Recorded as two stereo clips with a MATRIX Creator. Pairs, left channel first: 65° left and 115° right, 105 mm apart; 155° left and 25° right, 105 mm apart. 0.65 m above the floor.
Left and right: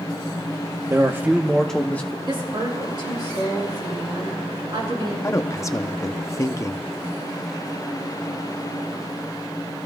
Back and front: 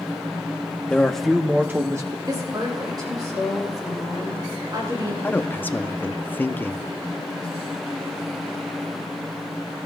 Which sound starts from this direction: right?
A woman speaking, at 2.3 s.